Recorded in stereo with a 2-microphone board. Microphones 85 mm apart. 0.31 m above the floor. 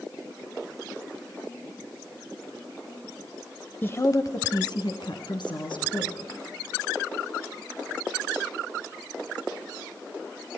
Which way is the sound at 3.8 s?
25° left (ahead or behind).